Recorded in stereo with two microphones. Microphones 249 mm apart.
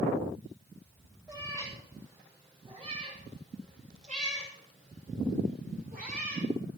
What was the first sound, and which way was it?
A cat meowing, 15° right (ahead or behind).